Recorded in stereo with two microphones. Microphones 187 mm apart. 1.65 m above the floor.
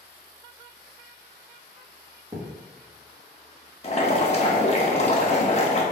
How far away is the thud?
About 1.2 m.